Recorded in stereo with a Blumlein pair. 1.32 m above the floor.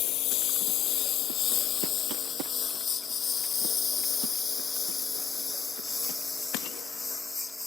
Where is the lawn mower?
35° left; by 7.7 s 5° left.